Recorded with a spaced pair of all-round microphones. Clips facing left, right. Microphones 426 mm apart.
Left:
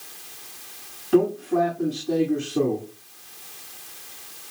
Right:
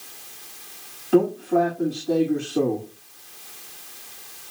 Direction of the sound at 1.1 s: 10° left (ahead or behind).